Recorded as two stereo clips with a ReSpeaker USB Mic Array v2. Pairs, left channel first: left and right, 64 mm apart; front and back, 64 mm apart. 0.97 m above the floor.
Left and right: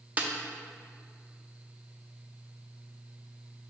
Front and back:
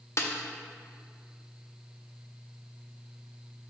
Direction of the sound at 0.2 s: 30° right.